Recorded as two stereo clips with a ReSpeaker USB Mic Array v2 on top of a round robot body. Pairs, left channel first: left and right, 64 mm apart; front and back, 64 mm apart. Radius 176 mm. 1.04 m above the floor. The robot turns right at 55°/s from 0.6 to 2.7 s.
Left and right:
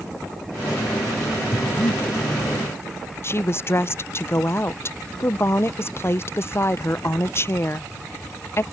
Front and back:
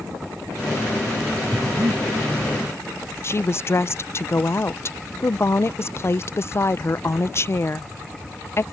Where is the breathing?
105° left; by 2.0 s 135° left.